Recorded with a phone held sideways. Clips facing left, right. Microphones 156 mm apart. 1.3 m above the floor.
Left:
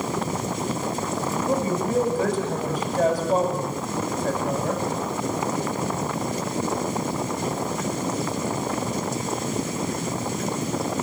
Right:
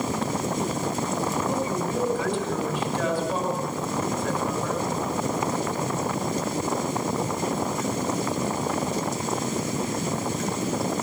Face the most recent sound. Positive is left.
turn(degrees=40)  # may be behind; listen again after turning